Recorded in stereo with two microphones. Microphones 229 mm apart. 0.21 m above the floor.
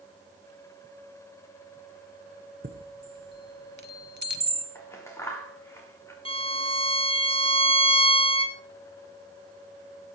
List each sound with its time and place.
2.6 s a chime: 50° right (ahead or behind), 1.2 m
4.8 s scissors: 10° left (ahead or behind), 3.5 m
6.2 s a violin: 25° left (ahead or behind), 1.6 m